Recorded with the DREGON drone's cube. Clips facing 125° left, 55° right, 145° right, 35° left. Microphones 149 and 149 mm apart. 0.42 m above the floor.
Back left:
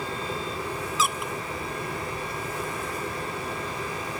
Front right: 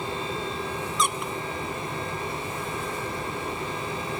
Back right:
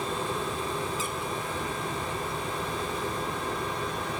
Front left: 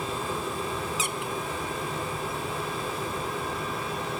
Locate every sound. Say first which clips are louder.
1.0 s a squeak: even, front left 1 dB; 40° left, 0.6 m